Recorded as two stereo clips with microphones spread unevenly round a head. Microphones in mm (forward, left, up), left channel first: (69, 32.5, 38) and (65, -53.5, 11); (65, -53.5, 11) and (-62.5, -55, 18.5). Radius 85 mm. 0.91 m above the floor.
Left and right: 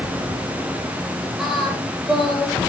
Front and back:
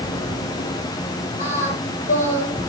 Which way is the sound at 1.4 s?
10° right.